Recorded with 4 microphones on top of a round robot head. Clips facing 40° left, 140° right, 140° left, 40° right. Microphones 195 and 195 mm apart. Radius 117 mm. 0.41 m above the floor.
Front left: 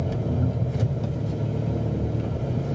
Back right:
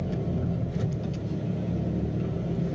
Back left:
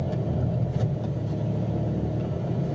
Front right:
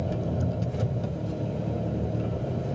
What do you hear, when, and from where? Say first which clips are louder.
0.0 s an engine running: front left 3 dB, back left 1 dB; 20° left, 3 m